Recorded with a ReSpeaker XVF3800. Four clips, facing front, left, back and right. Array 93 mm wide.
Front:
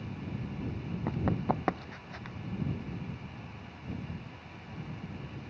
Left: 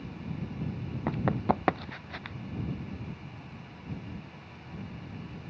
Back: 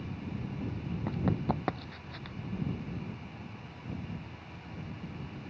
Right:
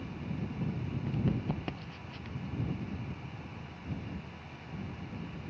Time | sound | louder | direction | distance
1.1 | running footsteps | left 7 dB, front 1 dB | 80° left | ?